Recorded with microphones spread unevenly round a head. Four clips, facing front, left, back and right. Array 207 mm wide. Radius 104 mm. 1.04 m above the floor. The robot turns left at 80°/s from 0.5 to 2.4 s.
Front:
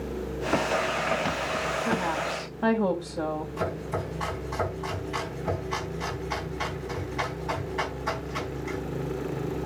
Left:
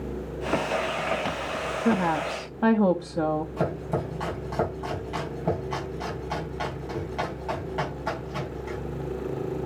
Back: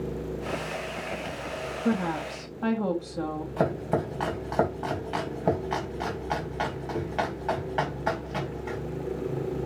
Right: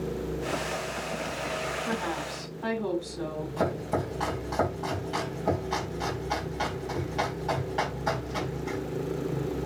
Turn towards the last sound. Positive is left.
turn(degrees=175)